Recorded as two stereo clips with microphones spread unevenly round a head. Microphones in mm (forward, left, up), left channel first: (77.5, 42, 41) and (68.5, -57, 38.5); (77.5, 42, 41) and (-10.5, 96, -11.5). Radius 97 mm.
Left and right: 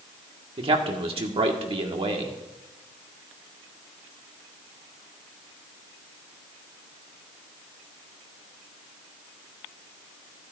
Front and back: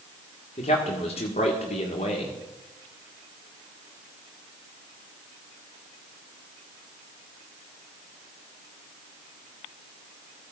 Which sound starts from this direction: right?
A man speaking, at 0.6 s.